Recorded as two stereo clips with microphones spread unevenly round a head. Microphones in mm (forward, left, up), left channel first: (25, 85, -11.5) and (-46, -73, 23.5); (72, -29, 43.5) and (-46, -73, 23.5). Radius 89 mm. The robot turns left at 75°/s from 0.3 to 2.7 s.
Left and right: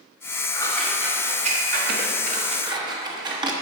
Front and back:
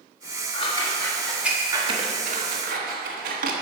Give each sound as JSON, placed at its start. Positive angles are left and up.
{"t": 0.5, "sound": "scissors", "azimuth_deg": -5, "distance_m": 1.0}